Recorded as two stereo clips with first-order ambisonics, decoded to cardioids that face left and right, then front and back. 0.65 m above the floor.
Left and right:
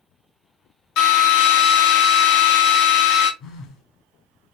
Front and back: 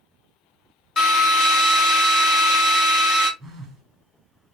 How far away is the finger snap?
I don't hear a finger snap.